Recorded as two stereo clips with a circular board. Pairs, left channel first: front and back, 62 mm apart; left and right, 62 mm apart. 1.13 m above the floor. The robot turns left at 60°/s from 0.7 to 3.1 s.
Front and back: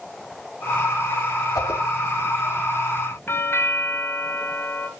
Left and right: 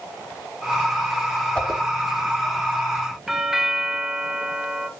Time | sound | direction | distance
1.6 | a whoosh | 15° left | 1.9 m
3.3 | a doorbell | 10° right | 1.1 m